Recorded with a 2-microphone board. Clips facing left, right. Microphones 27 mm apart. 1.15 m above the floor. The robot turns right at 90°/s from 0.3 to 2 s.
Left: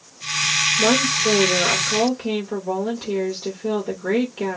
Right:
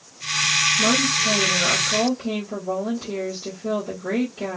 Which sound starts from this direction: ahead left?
A woman speaking, at 0.8 s.